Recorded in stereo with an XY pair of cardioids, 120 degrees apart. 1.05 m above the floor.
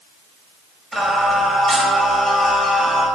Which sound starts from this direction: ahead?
Singing, at 0.9 s.